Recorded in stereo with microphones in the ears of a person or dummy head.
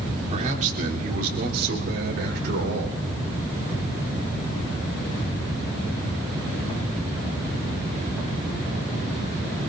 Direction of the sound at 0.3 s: 45° right (ahead or behind).